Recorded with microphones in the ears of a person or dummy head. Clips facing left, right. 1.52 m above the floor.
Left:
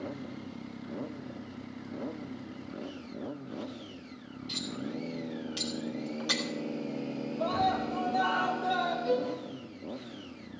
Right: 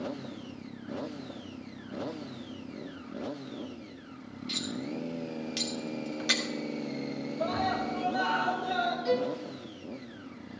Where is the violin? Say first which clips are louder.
Right 1 dB; 60° right (ahead or behind), 2.0 m.